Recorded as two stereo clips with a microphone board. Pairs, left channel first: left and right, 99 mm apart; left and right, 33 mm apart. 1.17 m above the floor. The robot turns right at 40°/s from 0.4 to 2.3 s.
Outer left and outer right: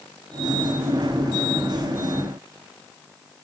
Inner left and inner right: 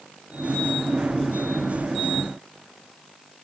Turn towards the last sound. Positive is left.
No sound to turn to.